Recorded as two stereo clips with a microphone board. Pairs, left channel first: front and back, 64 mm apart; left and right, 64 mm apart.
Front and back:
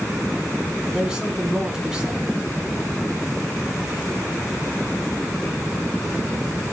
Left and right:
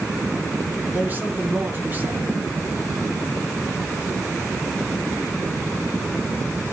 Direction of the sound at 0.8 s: 110° right.